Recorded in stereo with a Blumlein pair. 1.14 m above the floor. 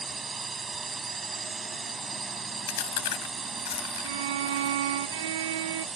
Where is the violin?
60° right.